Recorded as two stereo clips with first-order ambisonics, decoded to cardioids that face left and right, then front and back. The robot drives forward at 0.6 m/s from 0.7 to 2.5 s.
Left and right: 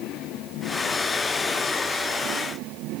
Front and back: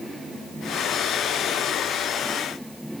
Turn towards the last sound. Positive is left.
No sound to turn to.